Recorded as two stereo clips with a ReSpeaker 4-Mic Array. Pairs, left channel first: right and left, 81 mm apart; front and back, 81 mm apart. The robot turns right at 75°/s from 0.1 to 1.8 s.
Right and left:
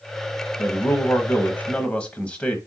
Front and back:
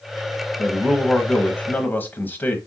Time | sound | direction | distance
0.6 | a man speaking | 120° right | 1.0 m